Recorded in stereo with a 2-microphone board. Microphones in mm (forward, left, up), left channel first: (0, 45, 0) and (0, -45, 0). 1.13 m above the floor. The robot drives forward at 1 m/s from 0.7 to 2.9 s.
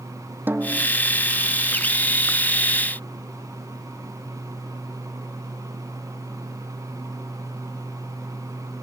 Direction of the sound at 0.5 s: 20° right (ahead or behind).